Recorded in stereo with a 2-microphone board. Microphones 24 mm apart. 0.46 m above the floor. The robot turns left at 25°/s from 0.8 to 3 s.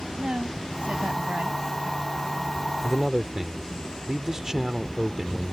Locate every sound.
0.2 s a woman speaking: 70° right (ahead or behind)
2.8 s a man speaking: 25° right (ahead or behind)